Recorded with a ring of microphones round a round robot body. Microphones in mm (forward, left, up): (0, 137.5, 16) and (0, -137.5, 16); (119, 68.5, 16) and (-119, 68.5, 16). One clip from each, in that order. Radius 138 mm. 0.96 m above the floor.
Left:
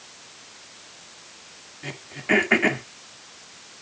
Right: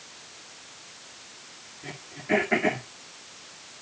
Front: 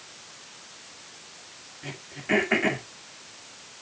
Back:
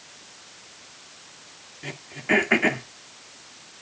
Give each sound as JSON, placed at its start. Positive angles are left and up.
{"t": 1.8, "sound": "throat clearing", "azimuth_deg": 125, "distance_m": 1.9}